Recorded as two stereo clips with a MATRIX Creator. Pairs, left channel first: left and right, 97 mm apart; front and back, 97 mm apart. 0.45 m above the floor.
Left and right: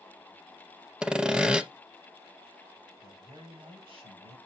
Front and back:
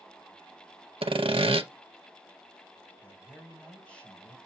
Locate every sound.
1.0 s sawing: 170° right, 0.6 m
3.0 s a man speaking: 75° right, 3 m